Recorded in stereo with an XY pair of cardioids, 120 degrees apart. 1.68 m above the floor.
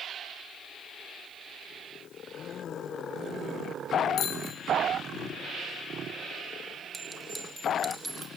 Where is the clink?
15° right, 2.5 m.